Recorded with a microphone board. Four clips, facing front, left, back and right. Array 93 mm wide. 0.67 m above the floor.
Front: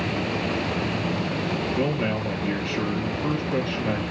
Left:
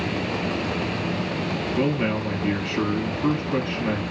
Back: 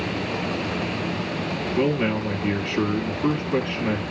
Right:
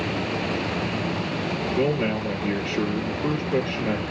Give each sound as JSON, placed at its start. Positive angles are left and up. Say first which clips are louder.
{"t": 1.8, "sound": "a man speaking", "louder": "even, back 6 dB", "azimuth_deg": 150, "distance_m": 1.3}